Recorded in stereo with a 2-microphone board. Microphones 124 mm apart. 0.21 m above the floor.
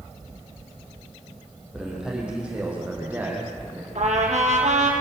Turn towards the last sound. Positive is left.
turn(degrees=-65)  # may be behind; listen again after turning